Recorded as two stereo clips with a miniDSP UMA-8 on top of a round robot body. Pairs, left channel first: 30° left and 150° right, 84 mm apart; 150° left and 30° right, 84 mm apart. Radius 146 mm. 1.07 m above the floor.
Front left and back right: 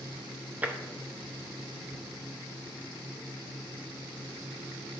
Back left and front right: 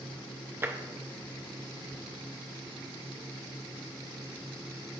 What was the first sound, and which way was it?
Tapping, 85° right.